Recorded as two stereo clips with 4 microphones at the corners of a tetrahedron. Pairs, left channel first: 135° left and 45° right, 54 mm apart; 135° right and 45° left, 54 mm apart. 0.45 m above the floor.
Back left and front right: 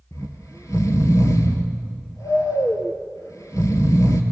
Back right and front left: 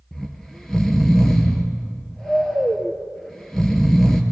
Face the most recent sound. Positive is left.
turn(degrees=140)